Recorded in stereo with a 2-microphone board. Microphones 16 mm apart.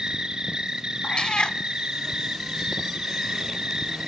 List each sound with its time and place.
0.0 s an insect: 50° right (ahead or behind), 1.8 m
1.0 s a cat meowing: 70° left (ahead or behind), 0.6 m